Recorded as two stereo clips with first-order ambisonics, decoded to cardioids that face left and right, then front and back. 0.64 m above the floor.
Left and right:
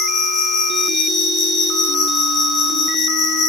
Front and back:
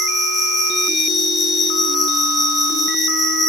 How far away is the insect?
About 1.8 m.